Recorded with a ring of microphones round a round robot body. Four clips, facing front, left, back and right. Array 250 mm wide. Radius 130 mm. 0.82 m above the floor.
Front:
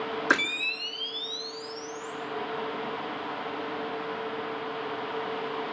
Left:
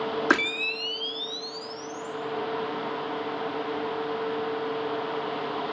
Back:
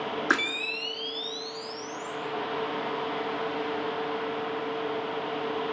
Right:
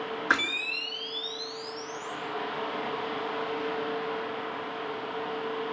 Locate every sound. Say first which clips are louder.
0.3 s a camera shutter: left 1 dB, front 3 dB; 85° left, 2.5 m